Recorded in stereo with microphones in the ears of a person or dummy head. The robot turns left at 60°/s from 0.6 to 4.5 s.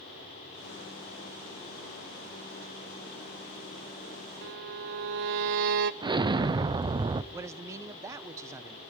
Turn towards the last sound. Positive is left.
turn(degrees=-20)  # may be behind; listen again after turning